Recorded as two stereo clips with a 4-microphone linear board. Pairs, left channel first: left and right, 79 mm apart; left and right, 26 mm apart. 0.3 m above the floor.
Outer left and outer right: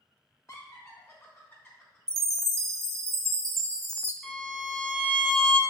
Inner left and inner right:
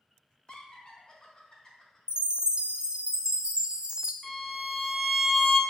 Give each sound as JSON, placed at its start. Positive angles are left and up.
{"t": 0.5, "sound": "laughter", "side_deg": 45, "distance_m": 2.5}
{"t": 2.1, "sound": "a chime", "side_deg": -35, "distance_m": 0.6}
{"t": 4.2, "sound": "a violin", "side_deg": 10, "distance_m": 0.9}